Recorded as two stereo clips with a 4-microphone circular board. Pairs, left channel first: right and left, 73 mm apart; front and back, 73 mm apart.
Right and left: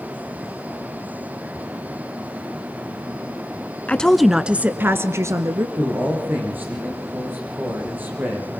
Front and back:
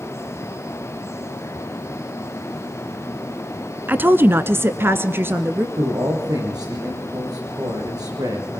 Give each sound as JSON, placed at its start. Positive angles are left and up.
{"t": 3.9, "sound": "a woman speaking", "azimuth_deg": -145, "distance_m": 1.2}
{"t": 5.8, "sound": "a man speaking", "azimuth_deg": 155, "distance_m": 8.5}